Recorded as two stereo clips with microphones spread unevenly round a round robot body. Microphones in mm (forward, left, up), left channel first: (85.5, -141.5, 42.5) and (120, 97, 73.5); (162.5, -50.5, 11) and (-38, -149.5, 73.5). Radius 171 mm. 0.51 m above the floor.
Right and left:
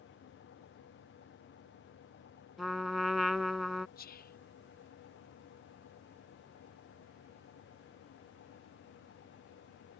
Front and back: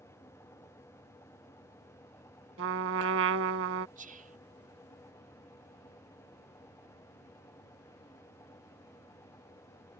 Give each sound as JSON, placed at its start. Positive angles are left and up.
{"t": 2.6, "sound": "a trumpet", "azimuth_deg": 165}
{"t": 4.0, "sound": "whispering", "azimuth_deg": -95}